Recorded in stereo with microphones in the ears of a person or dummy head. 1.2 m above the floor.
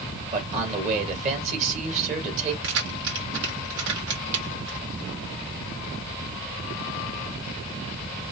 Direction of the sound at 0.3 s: 40° right (ahead or behind).